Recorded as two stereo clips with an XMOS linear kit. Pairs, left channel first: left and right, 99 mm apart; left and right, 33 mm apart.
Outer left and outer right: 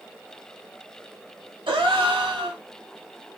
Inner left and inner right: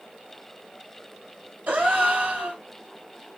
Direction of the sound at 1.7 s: 60° right (ahead or behind).